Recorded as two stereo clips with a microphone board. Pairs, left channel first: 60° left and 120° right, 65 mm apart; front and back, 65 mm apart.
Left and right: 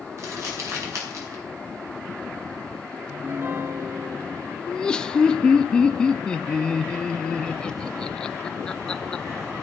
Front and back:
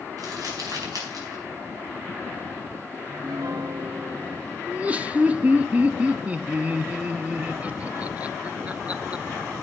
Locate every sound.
0.2 s crumpling: 160° right, 4 m
3.1 s a piano: 170° right, 0.7 m
4.7 s laughter: 130° left, 0.6 m